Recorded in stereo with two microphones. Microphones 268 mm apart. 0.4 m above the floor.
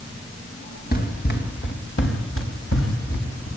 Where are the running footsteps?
35° left (ahead or behind), 3 m; by 3.5 s 65° left (ahead or behind), 5.5 m.